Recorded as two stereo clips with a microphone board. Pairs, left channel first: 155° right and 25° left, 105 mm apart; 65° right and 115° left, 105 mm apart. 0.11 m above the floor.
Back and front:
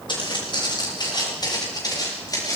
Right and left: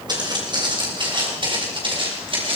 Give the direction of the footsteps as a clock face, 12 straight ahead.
7 o'clock.